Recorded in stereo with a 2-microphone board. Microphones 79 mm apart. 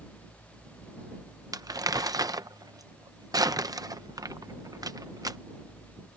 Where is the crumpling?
50° right (ahead or behind).